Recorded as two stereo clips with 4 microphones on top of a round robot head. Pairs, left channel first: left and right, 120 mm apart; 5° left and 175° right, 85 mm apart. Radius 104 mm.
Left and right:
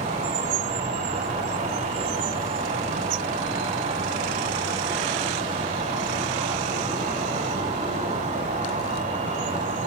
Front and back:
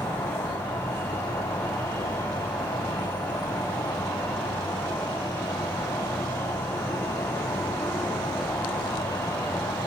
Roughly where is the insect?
Right.